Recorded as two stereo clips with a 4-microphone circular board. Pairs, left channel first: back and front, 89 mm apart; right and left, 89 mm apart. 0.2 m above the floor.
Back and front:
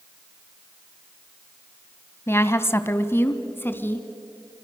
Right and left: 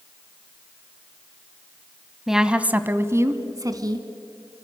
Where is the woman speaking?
175° left, 1.1 m; by 4.1 s 120° left, 1.7 m.